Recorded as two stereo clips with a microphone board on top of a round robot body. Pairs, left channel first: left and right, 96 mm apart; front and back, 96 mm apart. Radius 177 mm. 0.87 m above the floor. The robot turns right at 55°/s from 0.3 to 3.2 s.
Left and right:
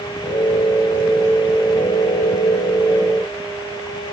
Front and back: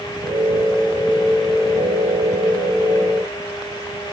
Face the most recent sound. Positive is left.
No sound to turn to.